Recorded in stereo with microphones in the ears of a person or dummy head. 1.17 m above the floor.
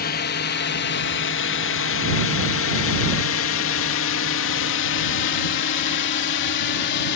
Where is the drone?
45° left (ahead or behind); by 7.2 s 55° left (ahead or behind).